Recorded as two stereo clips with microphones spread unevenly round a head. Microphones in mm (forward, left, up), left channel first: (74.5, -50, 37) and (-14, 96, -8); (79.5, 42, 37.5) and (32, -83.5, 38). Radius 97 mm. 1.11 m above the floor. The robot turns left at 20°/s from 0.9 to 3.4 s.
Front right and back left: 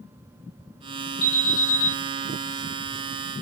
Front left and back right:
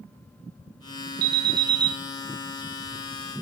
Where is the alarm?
120° right, 0.5 m; by 1.9 s 135° right, 0.5 m.